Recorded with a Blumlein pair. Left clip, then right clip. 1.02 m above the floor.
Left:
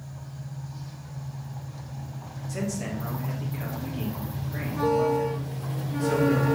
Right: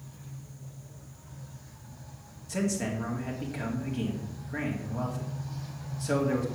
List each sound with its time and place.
2.5 s a man speaking: 15° right, 2.5 m